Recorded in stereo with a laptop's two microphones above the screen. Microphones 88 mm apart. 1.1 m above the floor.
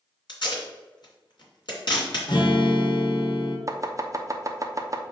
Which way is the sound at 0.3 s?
60° left (ahead or behind).